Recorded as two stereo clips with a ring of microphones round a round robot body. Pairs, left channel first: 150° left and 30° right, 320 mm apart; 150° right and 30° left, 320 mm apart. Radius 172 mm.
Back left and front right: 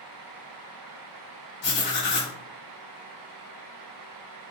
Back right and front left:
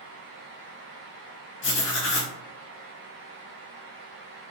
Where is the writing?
175° right, 1.4 m.